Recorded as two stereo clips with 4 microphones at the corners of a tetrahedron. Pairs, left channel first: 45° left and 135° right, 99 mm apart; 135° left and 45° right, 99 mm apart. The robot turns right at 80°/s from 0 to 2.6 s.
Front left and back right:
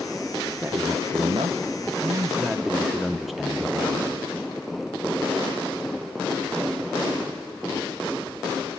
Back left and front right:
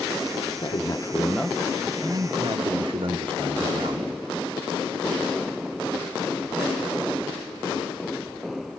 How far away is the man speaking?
About 1.1 m.